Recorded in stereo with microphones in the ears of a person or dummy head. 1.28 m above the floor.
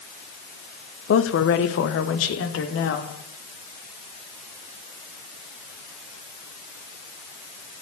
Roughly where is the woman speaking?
Left.